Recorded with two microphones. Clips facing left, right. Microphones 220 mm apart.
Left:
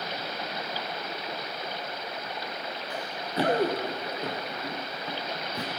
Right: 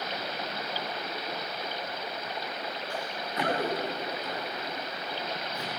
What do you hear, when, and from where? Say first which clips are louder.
2.9 s running footsteps: left 5 dB; 20° left (ahead or behind), 1.5 m; by 5.7 s 70° left (ahead or behind), 1.7 m